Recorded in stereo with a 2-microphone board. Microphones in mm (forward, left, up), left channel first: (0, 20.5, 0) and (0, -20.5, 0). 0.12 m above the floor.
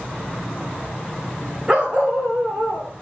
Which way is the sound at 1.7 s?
25° right (ahead or behind).